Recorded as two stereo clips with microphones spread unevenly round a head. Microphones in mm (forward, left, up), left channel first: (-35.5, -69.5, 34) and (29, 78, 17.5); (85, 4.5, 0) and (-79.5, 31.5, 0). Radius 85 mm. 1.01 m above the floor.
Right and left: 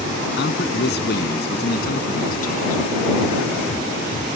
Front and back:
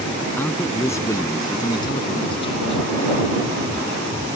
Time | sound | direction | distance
0.4 | a man speaking | 90° right | ?